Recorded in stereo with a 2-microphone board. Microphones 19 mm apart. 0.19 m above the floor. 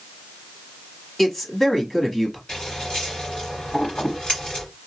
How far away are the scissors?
About 3 m.